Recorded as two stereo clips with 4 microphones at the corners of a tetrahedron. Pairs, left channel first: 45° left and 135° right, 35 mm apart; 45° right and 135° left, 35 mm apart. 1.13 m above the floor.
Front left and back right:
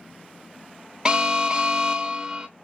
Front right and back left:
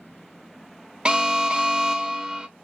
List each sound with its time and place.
1.1 s an alarm: 175° left, 0.6 m